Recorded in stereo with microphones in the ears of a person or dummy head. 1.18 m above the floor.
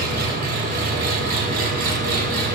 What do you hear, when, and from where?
0.0 s an engine running: 50° right (ahead or behind), 1.3 m